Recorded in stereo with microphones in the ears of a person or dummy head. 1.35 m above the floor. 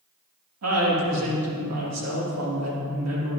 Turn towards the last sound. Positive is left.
turn(degrees=-80)